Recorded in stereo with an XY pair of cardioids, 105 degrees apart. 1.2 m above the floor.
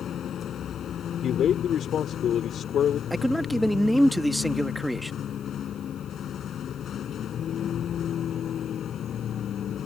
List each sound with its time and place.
0.0 s a vehicle: 60° left
1.2 s a man speaking: 65° left
3.1 s a man speaking: 5° left